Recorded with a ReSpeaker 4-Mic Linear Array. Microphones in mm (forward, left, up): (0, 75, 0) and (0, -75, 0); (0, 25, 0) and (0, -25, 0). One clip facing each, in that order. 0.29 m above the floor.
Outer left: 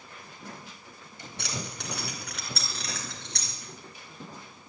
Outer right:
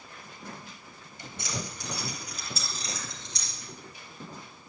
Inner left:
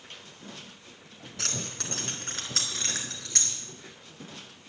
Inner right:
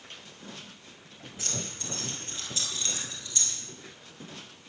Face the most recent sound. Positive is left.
turn(degrees=65)  # may be behind; listen again after turning